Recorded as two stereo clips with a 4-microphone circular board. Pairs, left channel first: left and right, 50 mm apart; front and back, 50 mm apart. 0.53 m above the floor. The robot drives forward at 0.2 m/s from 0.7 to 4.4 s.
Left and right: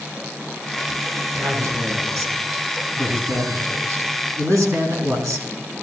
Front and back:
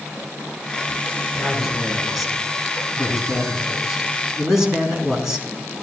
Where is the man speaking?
90° right, 4 m; by 5.5 s 95° right, 4 m.